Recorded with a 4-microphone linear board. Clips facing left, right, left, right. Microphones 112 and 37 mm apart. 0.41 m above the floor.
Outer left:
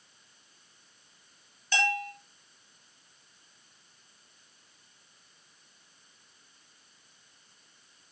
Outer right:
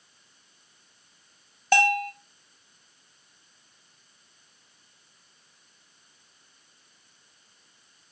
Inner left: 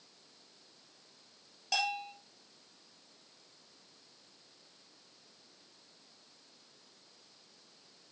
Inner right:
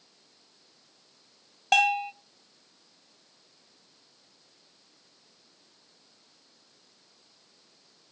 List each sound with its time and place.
1.7 s a bell: 60° right (ahead or behind), 1.7 m